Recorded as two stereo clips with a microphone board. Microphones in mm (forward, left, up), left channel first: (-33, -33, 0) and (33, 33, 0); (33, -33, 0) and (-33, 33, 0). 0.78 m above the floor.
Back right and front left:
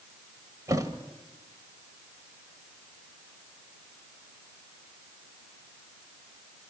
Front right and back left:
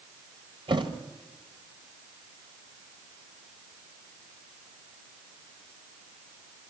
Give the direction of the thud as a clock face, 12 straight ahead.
9 o'clock.